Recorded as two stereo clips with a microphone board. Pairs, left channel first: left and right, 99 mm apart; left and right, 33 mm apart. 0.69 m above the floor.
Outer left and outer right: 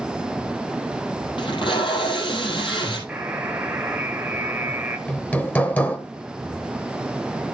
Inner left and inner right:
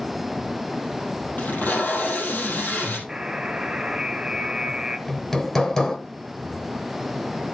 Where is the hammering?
15° left (ahead or behind), 1.2 m.